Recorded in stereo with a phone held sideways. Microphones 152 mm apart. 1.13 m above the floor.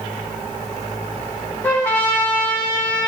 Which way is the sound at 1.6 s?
15° left (ahead or behind).